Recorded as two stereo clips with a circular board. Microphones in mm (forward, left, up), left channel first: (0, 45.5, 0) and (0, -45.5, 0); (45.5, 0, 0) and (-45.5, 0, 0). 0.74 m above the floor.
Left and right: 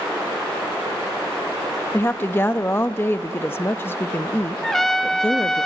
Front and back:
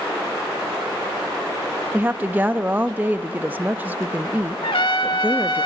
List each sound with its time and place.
1.9 s a woman speaking: 130° left, 0.6 m
4.6 s a trumpet: 5° left, 1.3 m